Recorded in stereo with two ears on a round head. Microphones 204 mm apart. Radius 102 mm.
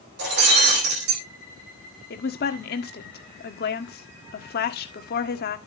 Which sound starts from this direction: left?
A woman speaking, at 2.1 s.